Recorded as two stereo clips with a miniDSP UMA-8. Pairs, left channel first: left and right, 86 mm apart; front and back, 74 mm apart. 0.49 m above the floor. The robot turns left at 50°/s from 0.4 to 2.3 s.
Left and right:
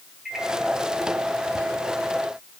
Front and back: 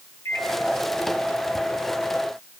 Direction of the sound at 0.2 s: 5° right.